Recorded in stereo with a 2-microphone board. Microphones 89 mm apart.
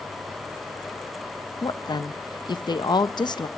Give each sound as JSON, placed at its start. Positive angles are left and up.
{"t": 1.6, "sound": "a woman speaking", "side_deg": 55, "distance_m": 0.5}